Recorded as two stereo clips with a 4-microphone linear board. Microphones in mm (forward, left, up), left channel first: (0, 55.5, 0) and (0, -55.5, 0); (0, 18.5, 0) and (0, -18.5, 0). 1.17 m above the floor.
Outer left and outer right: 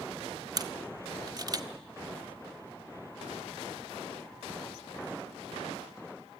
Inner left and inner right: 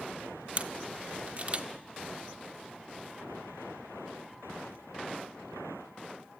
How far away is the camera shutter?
About 0.8 m.